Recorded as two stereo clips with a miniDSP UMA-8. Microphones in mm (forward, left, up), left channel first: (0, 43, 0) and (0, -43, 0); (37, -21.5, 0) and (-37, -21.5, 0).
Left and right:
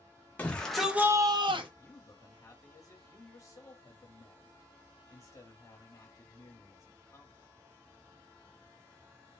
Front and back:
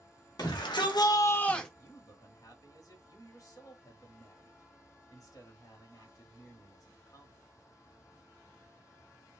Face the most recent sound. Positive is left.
turn(degrees=35)